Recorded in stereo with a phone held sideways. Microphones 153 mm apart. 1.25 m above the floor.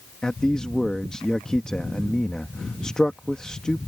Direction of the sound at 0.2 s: 5° left (ahead or behind).